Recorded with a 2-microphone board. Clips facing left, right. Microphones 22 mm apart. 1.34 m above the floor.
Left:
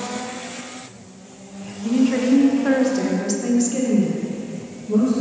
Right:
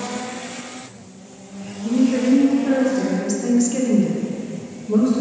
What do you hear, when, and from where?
1.8 s a woman speaking: 85° left, 1.4 m; by 5.2 s 35° right (ahead or behind), 1.9 m